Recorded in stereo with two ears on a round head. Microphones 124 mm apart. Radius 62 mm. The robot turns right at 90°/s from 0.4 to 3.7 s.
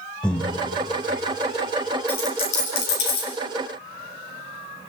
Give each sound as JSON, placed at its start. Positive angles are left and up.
{"t": 0.2, "sound": "breathing", "side_deg": 5, "distance_m": 1.2}
{"t": 2.1, "sound": "a dropped coin", "side_deg": 10, "distance_m": 5.5}